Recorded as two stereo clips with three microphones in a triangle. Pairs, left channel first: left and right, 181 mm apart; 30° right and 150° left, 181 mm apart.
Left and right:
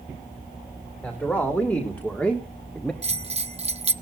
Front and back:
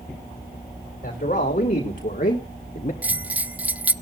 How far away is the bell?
About 0.7 m.